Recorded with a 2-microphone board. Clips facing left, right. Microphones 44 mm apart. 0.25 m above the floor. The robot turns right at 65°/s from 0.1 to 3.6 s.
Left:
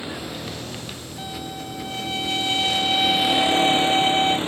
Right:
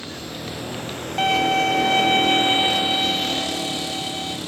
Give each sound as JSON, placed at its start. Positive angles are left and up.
{"t": 0.0, "sound": "a vehicle", "azimuth_deg": 165}
{"t": 1.2, "sound": "a violin", "azimuth_deg": -110}